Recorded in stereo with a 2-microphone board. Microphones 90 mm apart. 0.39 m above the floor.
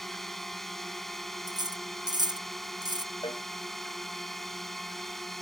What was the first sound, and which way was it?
A drone, 5° left (ahead or behind).